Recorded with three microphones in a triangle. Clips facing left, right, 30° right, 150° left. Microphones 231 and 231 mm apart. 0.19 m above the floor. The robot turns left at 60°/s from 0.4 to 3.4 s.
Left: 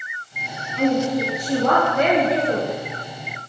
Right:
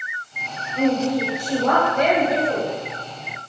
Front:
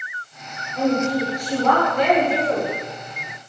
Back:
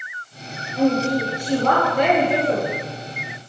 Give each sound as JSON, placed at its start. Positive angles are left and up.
{"t": 0.8, "sound": "a woman speaking", "azimuth_deg": -125, "distance_m": 3.0}